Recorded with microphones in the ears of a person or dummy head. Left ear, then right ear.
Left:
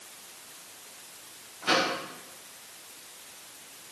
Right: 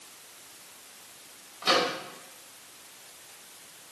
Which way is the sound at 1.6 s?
55° right (ahead or behind).